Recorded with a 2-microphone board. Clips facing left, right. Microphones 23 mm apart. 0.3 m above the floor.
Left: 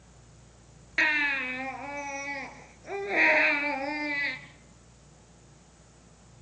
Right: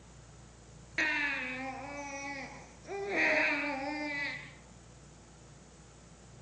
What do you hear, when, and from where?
1.0 s a baby crying: 20° left (ahead or behind), 2 m